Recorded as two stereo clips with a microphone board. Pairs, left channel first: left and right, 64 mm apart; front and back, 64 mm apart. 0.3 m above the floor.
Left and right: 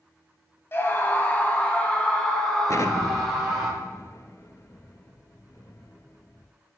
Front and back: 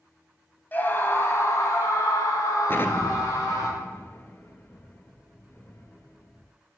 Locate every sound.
0.7 s a scream: 50° left, 1.7 m; by 3.7 s 5° left, 3.5 m
2.7 s an explosion: 55° left, 0.7 m